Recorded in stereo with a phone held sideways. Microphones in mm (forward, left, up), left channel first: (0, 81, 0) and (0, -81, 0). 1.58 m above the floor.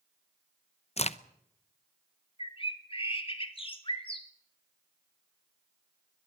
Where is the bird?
35° left (ahead or behind), 2.0 m.